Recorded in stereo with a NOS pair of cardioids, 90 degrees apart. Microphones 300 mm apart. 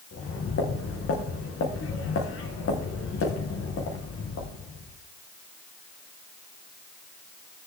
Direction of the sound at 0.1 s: 50° left.